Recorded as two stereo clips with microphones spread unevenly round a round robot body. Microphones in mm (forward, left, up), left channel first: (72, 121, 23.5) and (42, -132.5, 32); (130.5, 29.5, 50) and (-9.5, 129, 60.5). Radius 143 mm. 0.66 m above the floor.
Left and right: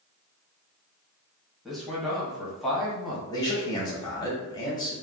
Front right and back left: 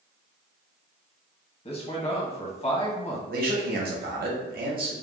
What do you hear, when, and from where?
1.6 s a man speaking: 5° right, 1.0 m
3.3 s a man speaking: 155° left, 0.8 m